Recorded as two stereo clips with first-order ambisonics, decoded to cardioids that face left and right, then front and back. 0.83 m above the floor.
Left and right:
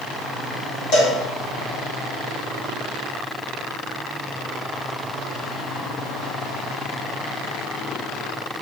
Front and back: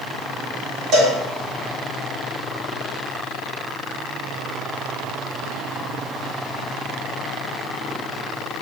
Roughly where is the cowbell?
Behind left.